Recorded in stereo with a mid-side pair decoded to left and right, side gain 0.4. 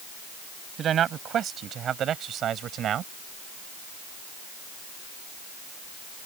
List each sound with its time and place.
0.8 s a man speaking: 65° right; by 3.1 s 70° right